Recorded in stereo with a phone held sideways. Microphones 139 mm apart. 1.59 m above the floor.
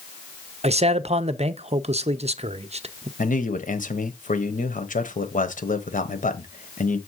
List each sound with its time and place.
0.6 s a man speaking: 50° right (ahead or behind), 0.5 m
3.2 s a man speaking: 70° left (ahead or behind), 1.1 m